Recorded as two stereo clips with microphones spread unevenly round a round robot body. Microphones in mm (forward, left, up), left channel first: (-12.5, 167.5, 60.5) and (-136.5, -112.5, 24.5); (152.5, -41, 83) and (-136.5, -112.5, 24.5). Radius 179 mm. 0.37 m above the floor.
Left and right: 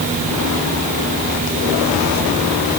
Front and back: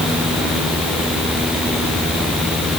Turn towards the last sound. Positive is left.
No sound to turn to.